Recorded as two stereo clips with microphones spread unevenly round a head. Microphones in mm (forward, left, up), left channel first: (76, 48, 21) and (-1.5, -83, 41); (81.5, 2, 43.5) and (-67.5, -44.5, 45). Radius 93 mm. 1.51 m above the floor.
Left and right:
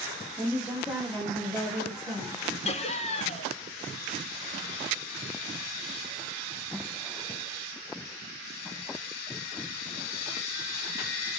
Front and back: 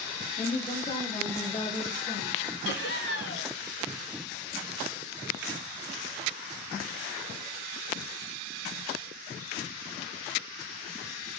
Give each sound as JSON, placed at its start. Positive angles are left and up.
{"t": 0.4, "sound": "a woman speaking", "azimuth_deg": -50, "distance_m": 1.0}
{"t": 2.6, "sound": "laughter", "azimuth_deg": 10, "distance_m": 0.8}